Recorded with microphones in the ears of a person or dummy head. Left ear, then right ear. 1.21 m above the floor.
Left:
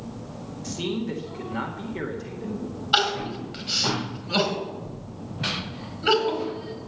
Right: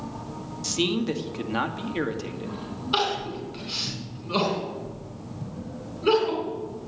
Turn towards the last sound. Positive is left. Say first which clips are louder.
# left 3 dB
turn(degrees=20)  # may be behind; listen again after turning